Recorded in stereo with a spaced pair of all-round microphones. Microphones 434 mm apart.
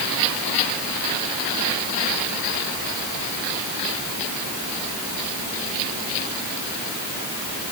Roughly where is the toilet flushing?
No toilet flushing in this recording.